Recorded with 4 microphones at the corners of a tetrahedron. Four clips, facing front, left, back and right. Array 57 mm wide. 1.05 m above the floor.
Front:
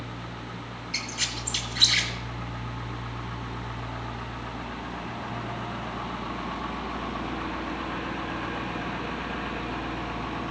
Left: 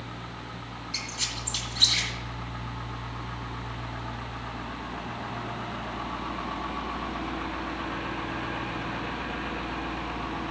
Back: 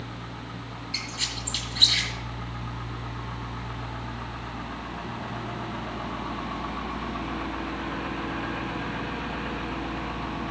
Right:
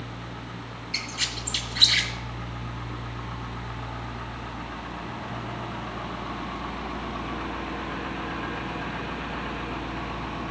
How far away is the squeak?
About 2 m.